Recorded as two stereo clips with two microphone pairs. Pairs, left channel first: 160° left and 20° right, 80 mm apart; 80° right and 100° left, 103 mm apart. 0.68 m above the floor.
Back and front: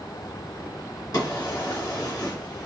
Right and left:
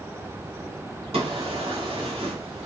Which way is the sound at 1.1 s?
125° left.